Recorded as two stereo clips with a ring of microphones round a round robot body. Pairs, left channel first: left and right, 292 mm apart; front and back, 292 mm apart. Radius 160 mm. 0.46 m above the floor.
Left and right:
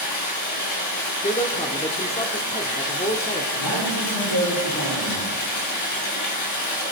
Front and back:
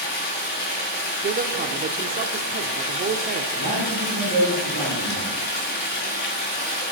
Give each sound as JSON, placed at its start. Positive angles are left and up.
{"t": 0.0, "sound": "running water", "azimuth_deg": 60, "distance_m": 4.5}
{"t": 1.2, "sound": "a man speaking", "azimuth_deg": 145, "distance_m": 0.9}
{"t": 3.5, "sound": "a man speaking", "azimuth_deg": 110, "distance_m": 7.0}